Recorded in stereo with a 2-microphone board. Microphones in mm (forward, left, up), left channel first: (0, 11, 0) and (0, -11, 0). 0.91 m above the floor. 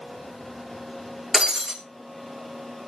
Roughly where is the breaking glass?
Right.